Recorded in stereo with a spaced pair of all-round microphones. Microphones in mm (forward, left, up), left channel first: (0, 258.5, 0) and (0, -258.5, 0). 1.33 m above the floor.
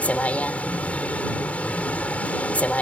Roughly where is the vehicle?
Centre.